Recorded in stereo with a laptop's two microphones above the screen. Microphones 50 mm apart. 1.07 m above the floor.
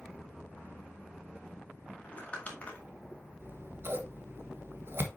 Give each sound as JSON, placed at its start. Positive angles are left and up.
{"t": 2.0, "sound": "crumpling", "side_deg": 30, "distance_m": 2.0}
{"t": 3.4, "sound": "scissors", "side_deg": -50, "distance_m": 1.2}